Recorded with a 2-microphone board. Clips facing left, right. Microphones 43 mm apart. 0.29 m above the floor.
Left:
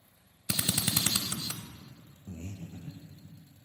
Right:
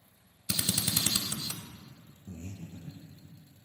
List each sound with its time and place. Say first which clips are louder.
0.5 s a drill: left 1 dB; 25° left (ahead or behind), 0.6 m
2.3 s breathing: left 1 dB; 60° left (ahead or behind), 1.1 m